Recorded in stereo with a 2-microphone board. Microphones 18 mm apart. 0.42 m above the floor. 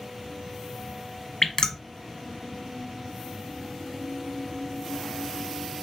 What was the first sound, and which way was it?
Dripping, 35° left (ahead or behind).